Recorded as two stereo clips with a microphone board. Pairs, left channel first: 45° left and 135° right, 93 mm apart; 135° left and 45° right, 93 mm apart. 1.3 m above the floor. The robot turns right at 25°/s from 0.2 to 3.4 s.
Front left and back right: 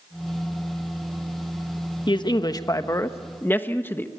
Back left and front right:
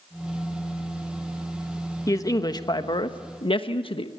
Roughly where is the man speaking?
Left.